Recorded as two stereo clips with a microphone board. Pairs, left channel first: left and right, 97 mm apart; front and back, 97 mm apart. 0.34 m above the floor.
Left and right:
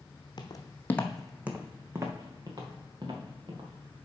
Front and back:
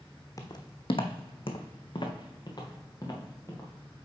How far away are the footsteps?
About 1.0 m.